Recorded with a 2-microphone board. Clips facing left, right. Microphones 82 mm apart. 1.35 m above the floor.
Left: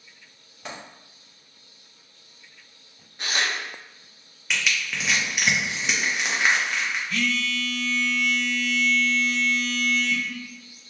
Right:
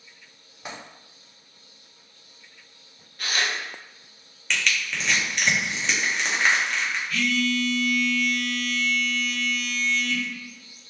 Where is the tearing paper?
20° left (ahead or behind), 0.6 m.